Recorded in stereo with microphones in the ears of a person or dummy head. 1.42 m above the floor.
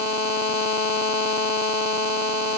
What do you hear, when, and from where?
Only background noise.